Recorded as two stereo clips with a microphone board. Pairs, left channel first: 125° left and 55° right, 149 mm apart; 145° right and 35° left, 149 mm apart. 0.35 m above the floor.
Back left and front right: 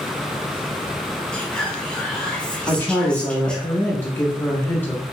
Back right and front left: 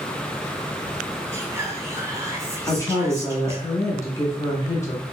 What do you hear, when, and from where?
1.3 s whispering: 50° left, 1.0 m
2.7 s a woman speaking: straight behind, 0.9 m